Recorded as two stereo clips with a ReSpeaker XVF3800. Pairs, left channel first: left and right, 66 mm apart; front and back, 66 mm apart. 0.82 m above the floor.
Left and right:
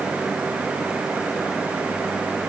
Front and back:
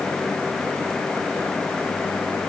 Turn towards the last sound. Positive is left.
No sound to turn to.